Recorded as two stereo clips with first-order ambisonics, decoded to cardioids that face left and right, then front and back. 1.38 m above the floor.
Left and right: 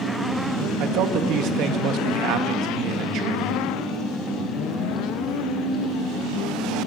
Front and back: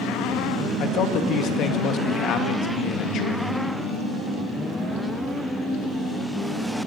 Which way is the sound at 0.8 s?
50° right.